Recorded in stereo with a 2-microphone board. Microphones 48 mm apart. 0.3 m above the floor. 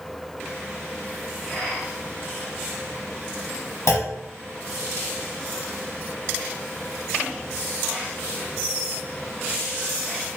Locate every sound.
3.9 s a clunk: 65° left (ahead or behind), 0.6 m